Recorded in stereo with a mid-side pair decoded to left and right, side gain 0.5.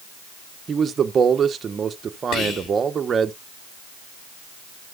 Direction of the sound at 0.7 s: 40° right.